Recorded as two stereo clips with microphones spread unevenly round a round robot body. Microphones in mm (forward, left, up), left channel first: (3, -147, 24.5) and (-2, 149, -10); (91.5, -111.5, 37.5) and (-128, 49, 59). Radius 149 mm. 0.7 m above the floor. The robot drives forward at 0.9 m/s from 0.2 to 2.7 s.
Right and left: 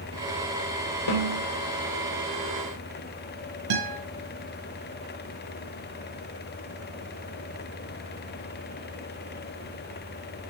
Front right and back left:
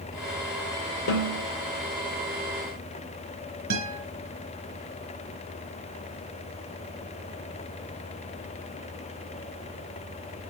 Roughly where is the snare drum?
Right.